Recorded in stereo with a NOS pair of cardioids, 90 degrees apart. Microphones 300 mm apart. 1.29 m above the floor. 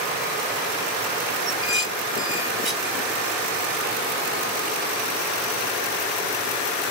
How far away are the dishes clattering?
About 1.4 m.